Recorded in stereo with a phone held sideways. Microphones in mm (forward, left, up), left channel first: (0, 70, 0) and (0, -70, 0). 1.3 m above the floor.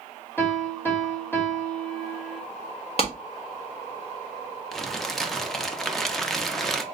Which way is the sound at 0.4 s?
15° left (ahead or behind).